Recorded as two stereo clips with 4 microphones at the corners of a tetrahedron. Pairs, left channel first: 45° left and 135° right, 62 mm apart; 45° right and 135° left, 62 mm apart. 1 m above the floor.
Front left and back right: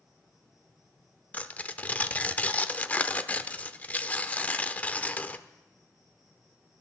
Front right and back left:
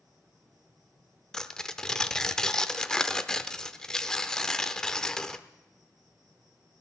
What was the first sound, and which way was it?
An insect, 140° left.